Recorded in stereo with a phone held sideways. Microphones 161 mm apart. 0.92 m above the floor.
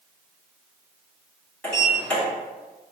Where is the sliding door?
5° left (ahead or behind), 1.5 m.